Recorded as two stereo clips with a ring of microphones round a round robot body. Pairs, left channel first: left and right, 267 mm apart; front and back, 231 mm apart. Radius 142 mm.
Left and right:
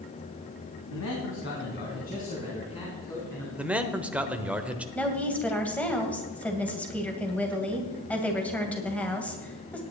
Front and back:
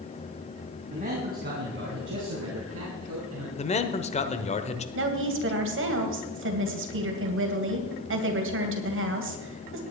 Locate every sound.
0.9 s a man speaking: 120° left, 3 m; by 3.5 s 170° left, 4 m
3.6 s a man speaking: 10° right, 1.1 m
5.0 s a woman speaking: 175° left, 2.5 m